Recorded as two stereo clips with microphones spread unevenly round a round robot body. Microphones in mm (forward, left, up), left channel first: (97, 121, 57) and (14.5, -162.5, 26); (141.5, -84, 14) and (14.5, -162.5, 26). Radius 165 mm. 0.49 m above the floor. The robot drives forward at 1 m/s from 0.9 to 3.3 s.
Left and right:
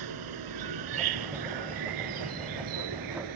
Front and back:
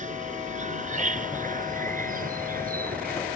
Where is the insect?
115° right; by 3.4 s 130° right.